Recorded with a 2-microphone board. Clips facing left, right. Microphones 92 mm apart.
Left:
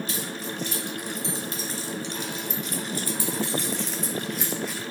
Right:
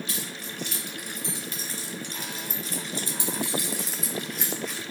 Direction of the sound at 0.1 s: 60° right (ahead or behind).